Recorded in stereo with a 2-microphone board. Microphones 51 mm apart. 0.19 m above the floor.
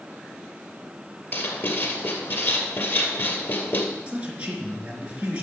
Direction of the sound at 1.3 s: 50° left (ahead or behind).